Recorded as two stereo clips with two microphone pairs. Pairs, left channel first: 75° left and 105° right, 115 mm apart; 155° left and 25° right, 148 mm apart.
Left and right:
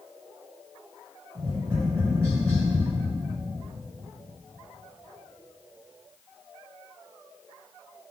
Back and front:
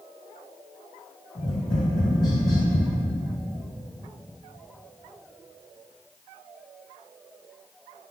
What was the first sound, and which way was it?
Tapping, 155° right.